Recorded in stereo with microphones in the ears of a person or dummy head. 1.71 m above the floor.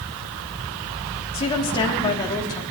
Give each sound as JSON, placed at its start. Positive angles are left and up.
{"t": 1.3, "sound": "a woman speaking", "side_deg": 25, "distance_m": 3.5}